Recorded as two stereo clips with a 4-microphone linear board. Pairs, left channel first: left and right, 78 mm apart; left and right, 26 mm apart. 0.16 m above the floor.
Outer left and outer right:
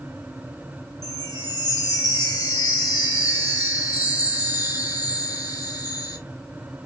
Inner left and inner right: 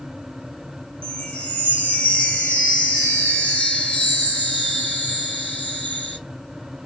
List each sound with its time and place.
1.0 s a chime: 55° left (ahead or behind), 2.0 m